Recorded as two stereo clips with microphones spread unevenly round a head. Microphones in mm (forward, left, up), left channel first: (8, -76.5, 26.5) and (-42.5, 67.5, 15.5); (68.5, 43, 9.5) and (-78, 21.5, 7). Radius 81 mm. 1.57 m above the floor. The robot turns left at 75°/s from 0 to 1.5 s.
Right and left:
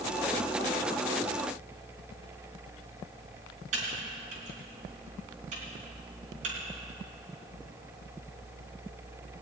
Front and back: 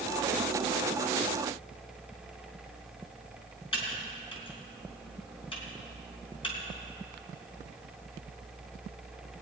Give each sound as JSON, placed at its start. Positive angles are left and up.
{"t": 3.7, "sound": "typing on a keyboard", "azimuth_deg": 60, "distance_m": 3.5}